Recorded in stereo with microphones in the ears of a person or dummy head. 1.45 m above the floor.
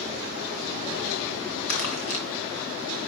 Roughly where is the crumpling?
Left.